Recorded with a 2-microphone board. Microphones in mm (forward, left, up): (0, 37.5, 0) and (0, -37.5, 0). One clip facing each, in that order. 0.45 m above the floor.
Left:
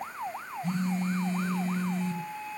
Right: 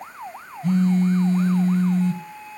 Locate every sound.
0.6 s a phone buzzing: 70° right (ahead or behind), 1.3 m